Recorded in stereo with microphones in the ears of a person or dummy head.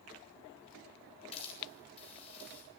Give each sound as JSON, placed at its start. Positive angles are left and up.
{"t": 1.3, "sound": "a hiss", "side_deg": 30, "distance_m": 9.0}